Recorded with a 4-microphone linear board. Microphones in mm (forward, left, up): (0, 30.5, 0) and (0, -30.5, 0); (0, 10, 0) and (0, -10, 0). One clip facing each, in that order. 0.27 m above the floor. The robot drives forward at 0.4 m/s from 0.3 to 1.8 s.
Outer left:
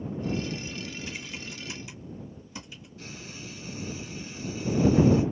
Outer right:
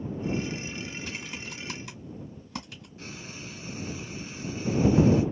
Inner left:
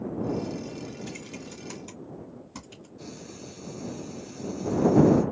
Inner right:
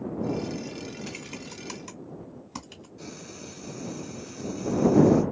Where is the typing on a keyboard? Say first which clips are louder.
Outer right 1 dB, inner right 1 dB; 65° right (ahead or behind), 2.5 m.